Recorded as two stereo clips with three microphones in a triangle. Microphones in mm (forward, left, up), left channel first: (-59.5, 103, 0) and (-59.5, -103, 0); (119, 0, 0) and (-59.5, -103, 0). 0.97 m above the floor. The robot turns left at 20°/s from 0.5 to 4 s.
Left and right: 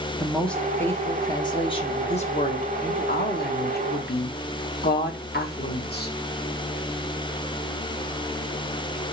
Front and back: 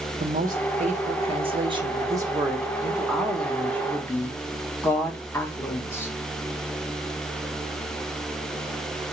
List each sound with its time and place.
0.2 s a woman speaking: 175° left, 0.9 m; by 6.1 s 105° left, 0.9 m